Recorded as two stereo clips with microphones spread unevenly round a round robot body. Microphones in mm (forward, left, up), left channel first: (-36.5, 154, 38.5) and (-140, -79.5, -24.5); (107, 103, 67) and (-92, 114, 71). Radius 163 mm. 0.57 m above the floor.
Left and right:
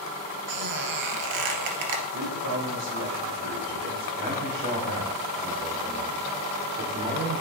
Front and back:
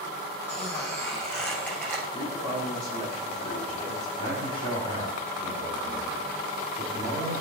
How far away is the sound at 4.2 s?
About 1.8 m.